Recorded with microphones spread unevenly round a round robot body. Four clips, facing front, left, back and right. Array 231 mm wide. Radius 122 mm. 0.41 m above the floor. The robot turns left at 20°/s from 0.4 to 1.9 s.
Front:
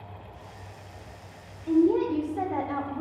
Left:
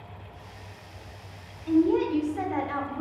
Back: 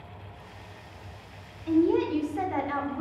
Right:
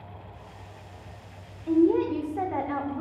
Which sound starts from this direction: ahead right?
A woman speaking, at 1.7 s.